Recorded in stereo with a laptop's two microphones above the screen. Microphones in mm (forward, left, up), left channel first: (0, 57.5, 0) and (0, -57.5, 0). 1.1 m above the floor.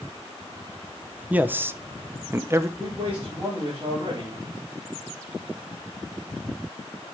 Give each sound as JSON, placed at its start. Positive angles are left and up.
{"t": 1.3, "sound": "a man speaking", "side_deg": -15, "distance_m": 0.6}
{"t": 2.8, "sound": "a man speaking", "side_deg": -50, "distance_m": 4.0}